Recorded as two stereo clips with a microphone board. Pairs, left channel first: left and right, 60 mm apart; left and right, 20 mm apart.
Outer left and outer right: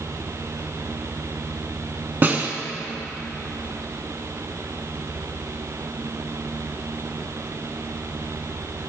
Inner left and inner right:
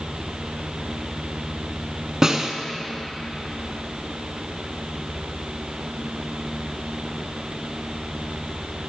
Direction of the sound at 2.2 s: 30° right (ahead or behind).